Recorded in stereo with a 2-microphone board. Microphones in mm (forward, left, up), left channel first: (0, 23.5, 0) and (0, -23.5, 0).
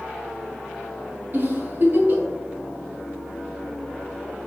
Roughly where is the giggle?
Right.